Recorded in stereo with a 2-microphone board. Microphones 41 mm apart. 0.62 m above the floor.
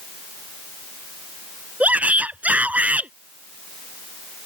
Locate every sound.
1.8 s a shout: 40° right (ahead or behind)